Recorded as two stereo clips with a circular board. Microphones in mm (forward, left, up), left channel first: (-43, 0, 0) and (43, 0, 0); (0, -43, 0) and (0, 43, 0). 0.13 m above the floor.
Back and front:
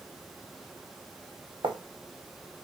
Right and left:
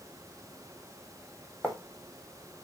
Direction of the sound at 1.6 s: 5° right.